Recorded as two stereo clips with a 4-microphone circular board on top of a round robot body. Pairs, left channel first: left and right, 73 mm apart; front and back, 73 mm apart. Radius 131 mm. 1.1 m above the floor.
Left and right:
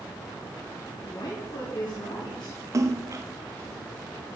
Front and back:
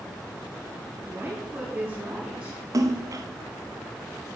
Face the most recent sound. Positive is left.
turn(degrees=-135)